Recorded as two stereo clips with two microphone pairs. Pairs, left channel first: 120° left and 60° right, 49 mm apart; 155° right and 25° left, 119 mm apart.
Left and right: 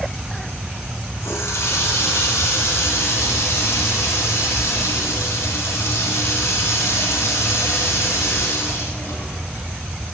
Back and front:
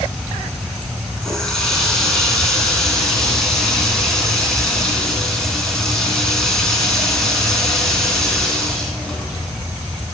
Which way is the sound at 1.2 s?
120° left.